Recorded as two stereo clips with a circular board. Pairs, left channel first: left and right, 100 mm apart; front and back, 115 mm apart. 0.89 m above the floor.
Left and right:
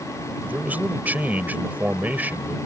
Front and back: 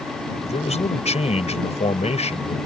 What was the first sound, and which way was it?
A man speaking, 15° right.